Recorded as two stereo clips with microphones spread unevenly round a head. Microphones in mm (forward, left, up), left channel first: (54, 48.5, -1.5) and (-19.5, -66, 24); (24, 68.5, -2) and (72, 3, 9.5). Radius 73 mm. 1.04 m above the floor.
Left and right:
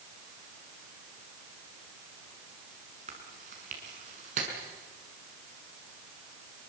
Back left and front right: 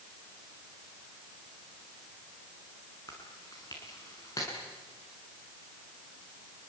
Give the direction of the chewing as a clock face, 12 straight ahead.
5 o'clock.